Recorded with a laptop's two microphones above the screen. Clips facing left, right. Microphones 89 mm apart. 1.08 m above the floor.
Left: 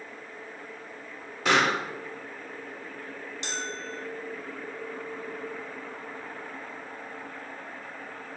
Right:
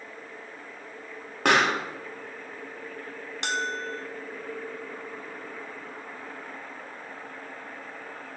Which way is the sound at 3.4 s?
65° right (ahead or behind).